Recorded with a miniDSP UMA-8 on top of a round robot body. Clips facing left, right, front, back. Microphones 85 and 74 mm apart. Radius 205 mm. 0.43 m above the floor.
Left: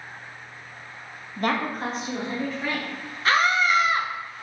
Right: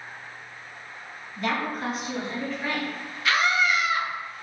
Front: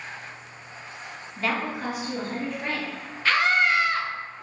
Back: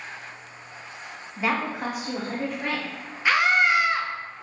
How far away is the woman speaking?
About 0.9 m.